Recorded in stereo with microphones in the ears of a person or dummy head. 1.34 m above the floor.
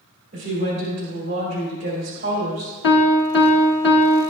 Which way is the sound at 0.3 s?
45° right (ahead or behind).